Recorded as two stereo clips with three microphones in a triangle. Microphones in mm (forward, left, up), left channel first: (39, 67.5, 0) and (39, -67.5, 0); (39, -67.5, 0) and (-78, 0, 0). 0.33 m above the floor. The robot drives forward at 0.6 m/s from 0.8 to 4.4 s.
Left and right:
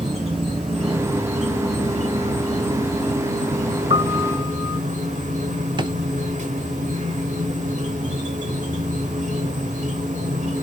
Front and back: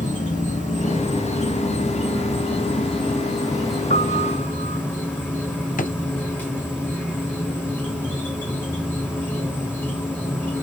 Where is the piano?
45° right, 2.5 m; by 4.8 s 50° right, 2 m.